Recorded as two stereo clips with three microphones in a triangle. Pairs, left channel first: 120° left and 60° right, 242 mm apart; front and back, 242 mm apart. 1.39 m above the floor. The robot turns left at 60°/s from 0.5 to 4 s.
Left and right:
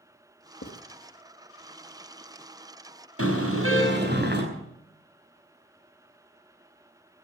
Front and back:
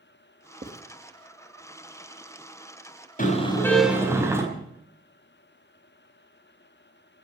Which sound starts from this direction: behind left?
Writing, at 0.6 s.